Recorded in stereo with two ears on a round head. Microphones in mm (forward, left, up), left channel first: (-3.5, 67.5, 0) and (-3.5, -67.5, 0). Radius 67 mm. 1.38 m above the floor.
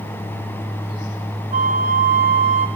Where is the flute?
55° right (ahead or behind), 2.0 m.